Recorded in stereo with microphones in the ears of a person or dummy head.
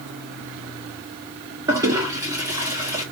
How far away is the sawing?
I don't hear sawing.